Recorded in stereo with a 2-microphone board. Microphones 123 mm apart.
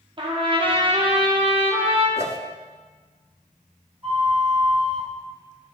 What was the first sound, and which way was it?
A trumpet, 40° right (ahead or behind).